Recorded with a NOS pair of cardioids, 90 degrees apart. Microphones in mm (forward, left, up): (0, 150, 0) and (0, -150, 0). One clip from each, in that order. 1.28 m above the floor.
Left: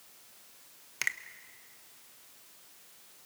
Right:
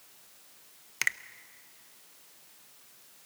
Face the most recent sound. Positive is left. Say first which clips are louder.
# right 3 dB
turn(degrees=-15)